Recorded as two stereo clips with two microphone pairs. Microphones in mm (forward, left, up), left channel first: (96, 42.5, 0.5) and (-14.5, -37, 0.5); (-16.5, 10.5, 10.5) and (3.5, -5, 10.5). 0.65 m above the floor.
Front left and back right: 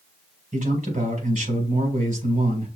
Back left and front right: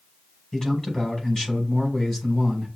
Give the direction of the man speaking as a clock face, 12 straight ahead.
5 o'clock.